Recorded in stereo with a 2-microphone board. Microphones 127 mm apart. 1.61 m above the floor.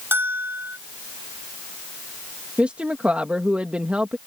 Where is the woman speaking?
10° right (ahead or behind).